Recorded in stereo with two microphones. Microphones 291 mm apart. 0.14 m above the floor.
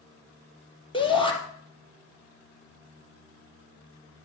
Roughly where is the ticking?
I don't hear ticking.